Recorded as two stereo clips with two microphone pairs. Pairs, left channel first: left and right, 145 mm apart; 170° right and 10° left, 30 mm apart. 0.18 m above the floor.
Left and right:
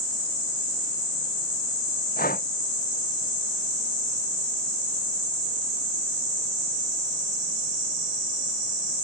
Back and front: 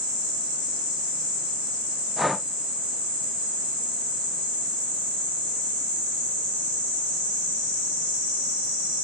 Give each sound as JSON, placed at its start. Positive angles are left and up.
{"t": 2.2, "sound": "breathing", "azimuth_deg": 95}